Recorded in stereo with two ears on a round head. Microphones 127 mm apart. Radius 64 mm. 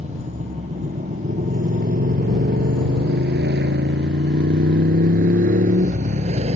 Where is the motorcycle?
45° right (ahead or behind); by 6.6 s 50° right (ahead or behind).